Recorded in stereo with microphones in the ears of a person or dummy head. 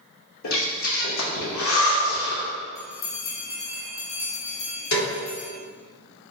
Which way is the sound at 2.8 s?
20° left (ahead or behind).